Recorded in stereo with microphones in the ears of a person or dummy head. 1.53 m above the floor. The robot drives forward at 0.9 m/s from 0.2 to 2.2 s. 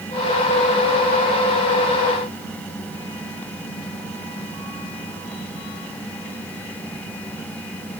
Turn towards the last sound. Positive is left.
No sound to turn to.